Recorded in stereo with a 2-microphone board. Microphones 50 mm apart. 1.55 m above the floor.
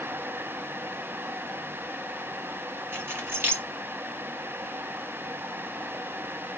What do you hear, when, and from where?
2.9 s keys jangling: 45° right (ahead or behind), 2.5 m